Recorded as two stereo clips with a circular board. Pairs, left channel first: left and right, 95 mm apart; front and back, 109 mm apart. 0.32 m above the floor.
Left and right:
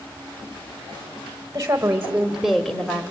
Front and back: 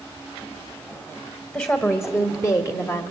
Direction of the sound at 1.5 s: 60° right.